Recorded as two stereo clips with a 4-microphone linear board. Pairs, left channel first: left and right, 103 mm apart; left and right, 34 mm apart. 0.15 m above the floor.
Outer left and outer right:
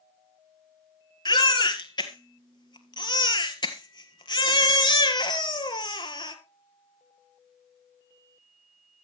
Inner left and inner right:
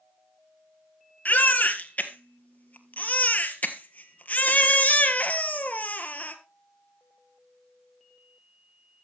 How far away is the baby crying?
About 1.4 m.